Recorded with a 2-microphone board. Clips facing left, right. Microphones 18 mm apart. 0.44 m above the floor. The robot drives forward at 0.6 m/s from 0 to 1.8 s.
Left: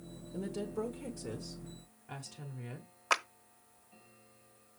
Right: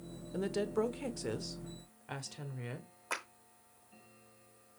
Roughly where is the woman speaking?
Right.